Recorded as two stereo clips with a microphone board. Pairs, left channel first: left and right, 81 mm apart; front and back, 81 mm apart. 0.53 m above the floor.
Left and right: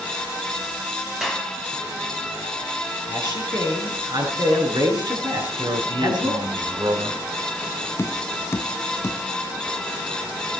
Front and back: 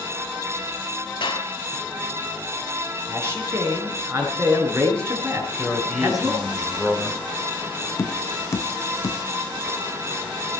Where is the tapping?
40° left, 0.6 m.